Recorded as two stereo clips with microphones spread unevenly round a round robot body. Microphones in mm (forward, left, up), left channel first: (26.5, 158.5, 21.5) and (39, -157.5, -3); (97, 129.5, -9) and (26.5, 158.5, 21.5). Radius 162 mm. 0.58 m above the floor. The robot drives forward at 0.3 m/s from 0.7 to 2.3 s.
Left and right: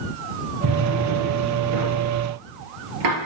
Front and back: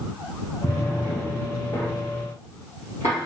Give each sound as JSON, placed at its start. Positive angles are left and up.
{"t": 0.6, "sound": "a drawer", "azimuth_deg": -75, "distance_m": 3.5}